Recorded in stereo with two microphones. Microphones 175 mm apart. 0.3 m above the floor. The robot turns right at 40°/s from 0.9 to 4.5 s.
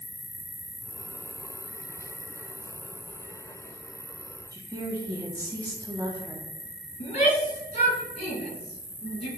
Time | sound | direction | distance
0.0 | an insect | 30° left | 1.6 m
4.5 | a woman speaking | 20° right (ahead or behind) | 1.8 m
7.0 | a shout | 40° left (ahead or behind) | 3 m